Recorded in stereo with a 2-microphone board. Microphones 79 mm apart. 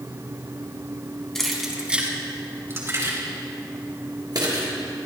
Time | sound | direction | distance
1.4 | keys jangling | 5° left (ahead or behind) | 2.5 m